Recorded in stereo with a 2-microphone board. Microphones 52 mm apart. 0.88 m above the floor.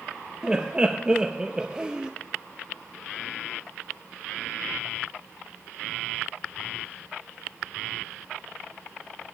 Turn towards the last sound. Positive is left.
turn(degrees=-15)  # may be behind; listen again after turning